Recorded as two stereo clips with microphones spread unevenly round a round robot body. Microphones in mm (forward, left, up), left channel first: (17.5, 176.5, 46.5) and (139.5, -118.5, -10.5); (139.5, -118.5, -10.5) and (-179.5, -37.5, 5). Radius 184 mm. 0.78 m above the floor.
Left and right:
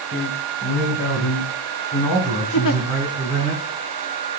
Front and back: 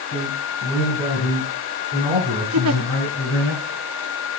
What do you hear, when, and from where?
0.1 s a man speaking: 55° left, 6.5 m; by 3.5 s 40° left, 8.5 m
2.5 s a giggle: 150° left, 0.8 m